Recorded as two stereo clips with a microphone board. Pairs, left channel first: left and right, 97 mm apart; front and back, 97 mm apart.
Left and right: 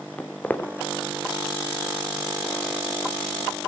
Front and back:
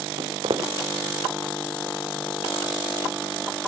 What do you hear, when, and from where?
0.2 s footsteps: 160° left, 1.4 m